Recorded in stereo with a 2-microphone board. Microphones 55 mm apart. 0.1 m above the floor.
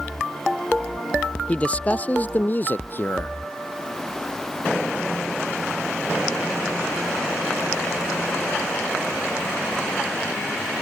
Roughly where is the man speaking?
Left.